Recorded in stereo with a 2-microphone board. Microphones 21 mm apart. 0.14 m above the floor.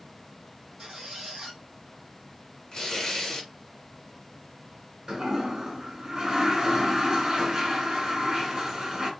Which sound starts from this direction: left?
Tearing paper, at 2.7 s.